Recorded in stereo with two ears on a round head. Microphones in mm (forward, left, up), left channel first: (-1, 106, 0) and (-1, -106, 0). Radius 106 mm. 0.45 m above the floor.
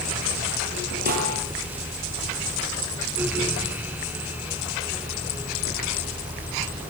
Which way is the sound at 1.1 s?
40° right (ahead or behind).